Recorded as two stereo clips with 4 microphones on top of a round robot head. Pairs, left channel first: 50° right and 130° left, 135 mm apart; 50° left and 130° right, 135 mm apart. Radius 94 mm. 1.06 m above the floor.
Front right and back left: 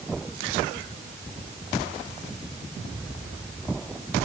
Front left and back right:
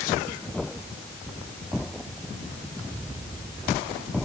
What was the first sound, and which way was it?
Only background noise.